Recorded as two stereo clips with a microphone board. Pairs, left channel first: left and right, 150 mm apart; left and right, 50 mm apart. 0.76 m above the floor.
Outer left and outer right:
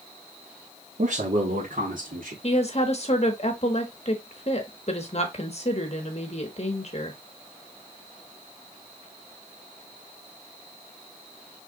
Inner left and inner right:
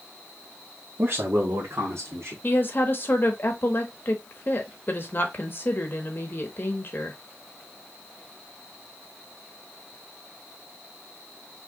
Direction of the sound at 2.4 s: 45° left (ahead or behind).